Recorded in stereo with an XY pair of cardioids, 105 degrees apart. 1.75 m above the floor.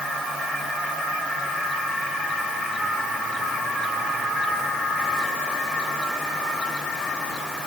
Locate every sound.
Only background noise.